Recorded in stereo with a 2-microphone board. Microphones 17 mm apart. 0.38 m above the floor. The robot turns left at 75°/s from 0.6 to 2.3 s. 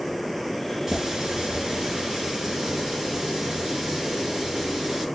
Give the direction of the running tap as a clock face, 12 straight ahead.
1 o'clock.